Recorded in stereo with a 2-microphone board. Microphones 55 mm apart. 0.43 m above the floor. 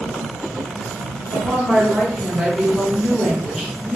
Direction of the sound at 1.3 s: 5° right (ahead or behind).